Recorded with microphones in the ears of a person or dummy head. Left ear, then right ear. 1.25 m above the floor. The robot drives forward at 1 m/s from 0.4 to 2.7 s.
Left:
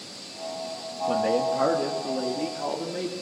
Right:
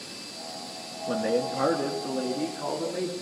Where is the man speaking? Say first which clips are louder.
Left 3 dB; 15° left (ahead or behind), 2 m; by 3.1 s 10° left (ahead or behind), 4 m.